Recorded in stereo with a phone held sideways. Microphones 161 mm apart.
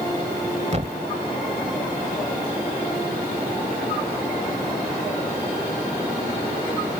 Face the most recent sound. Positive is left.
turn(degrees=-45)  # may be behind; listen again after turning